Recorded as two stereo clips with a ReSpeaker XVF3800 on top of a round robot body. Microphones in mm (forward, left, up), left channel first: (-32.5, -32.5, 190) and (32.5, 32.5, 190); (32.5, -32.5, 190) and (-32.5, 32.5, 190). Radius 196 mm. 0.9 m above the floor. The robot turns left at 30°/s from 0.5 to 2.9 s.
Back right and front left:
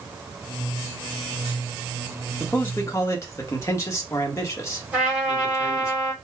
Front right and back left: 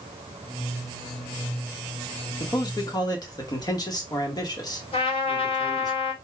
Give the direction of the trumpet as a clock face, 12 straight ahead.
1 o'clock.